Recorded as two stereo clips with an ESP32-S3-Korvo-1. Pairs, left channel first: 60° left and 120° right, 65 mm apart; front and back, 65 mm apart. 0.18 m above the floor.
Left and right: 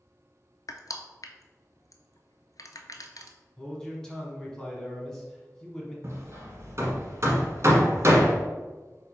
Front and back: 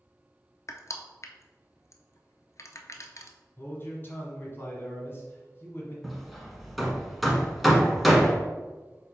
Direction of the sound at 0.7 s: 35° left.